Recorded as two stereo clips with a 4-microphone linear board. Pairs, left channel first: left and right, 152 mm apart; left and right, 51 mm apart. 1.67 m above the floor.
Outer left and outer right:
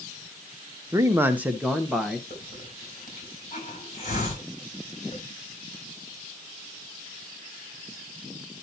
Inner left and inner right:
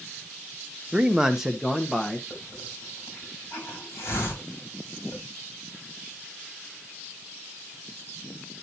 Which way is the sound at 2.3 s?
50° left (ahead or behind).